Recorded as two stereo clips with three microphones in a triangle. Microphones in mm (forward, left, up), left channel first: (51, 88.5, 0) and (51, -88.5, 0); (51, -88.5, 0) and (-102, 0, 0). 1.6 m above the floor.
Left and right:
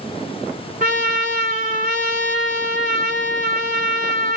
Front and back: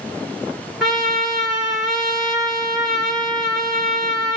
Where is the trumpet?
120° right, 1.4 m.